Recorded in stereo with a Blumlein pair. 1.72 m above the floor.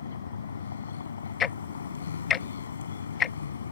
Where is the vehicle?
70° left.